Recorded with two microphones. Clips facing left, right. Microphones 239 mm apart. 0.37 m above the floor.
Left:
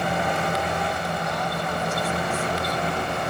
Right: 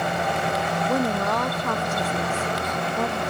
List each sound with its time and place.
0.9 s a woman speaking: 65° right (ahead or behind)